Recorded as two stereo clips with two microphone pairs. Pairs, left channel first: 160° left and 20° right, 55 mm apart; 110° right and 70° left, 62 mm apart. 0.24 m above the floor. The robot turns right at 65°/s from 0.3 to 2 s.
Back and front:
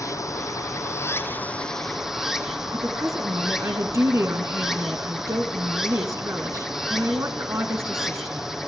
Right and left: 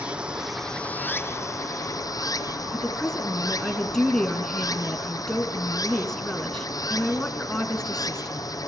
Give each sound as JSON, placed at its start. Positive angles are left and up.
{"t": 0.0, "sound": "running water", "azimuth_deg": 145, "distance_m": 1.8}
{"t": 2.7, "sound": "a woman speaking", "azimuth_deg": -30, "distance_m": 2.5}